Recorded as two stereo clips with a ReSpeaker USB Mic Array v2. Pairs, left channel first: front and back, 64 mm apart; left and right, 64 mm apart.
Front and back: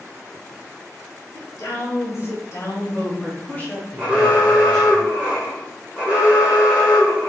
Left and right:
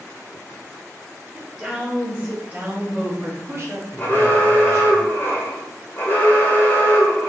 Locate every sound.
1.3 s a woman speaking: 5° right, 1.8 m; by 5.0 s 100° right, 1.4 m
4.0 s an alarm: 120° left, 1.2 m